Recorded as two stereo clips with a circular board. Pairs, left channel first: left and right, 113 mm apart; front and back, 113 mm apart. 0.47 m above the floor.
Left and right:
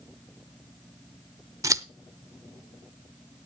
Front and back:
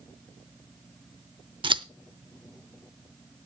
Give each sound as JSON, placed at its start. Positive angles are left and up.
{"t": 1.6, "sound": "scissors", "azimuth_deg": -145, "distance_m": 0.7}